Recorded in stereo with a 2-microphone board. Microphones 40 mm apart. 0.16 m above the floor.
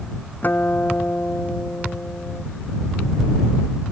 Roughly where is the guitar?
Left.